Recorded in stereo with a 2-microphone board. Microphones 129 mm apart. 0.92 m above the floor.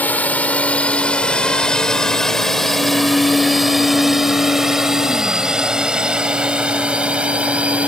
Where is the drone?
15° left (ahead or behind); by 7.9 s 10° right (ahead or behind).